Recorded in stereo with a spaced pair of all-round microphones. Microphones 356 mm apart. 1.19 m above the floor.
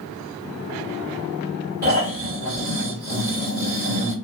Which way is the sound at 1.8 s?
25° right (ahead or behind).